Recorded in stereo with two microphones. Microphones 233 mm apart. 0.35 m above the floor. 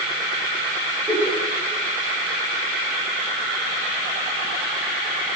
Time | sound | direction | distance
1.1 | a giggle | 5° right (ahead or behind) | 6.5 m